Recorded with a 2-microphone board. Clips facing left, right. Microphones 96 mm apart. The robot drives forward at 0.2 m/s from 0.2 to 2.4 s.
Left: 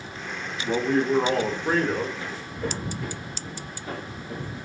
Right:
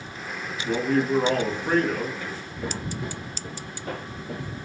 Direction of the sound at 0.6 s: 15° left (ahead or behind).